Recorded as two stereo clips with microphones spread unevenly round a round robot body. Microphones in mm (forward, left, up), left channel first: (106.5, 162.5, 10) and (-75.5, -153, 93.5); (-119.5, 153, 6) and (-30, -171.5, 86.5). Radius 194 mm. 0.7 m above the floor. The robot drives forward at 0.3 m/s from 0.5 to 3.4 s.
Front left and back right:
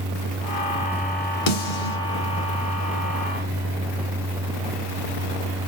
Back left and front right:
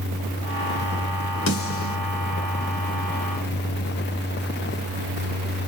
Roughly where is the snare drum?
Ahead left.